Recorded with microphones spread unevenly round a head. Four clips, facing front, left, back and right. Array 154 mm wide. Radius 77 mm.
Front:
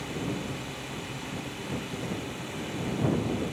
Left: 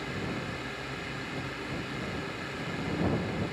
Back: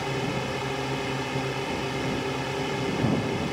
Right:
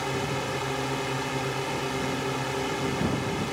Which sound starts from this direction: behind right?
A drone, at 0.0 s.